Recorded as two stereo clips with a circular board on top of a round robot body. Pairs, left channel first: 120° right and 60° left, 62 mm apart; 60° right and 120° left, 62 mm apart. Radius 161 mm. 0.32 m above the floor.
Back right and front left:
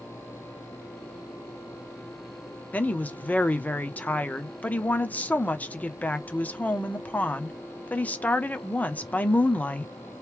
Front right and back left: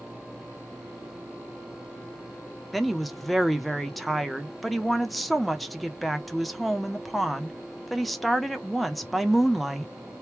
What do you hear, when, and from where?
2.7 s a woman speaking: 150° right, 1.2 m